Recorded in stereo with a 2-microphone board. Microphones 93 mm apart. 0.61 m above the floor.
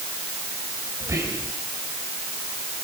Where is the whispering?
30° right (ahead or behind), 4 m.